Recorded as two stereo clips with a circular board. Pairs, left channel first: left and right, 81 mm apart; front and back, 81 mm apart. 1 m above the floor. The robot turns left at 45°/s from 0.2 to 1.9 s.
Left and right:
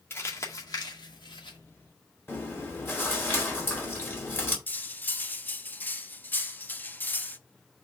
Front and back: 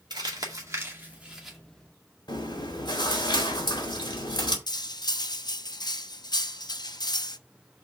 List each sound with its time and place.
0.1 s crumpling: 150° left, 2 m; by 1.6 s 90° left, 2 m
2.3 s chewing: 30° left, 2.5 m
4.7 s cutlery clinking: 25° left, 0.6 m